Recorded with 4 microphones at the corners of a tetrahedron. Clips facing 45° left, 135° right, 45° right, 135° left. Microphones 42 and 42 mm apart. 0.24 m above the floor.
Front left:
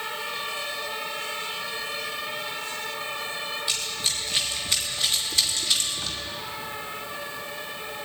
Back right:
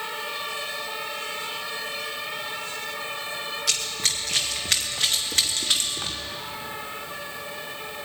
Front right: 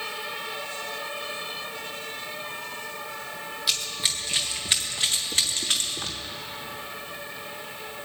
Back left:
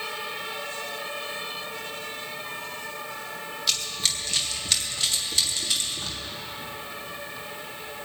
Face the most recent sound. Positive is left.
turn(degrees=-85)